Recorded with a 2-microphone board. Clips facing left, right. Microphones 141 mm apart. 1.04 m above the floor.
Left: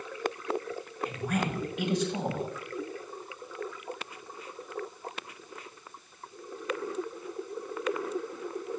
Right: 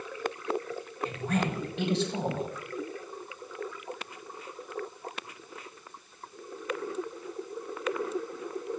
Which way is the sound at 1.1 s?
30° right (ahead or behind).